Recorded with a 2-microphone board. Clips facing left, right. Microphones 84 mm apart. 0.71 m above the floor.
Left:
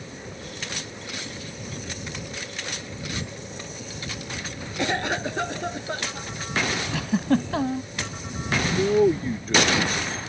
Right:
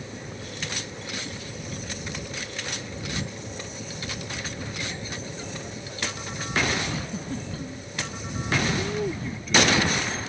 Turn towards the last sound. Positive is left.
turn(degrees=40)  # may be behind; listen again after turning